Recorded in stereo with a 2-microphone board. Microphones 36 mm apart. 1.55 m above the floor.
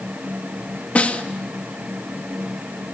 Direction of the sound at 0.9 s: 45° left (ahead or behind).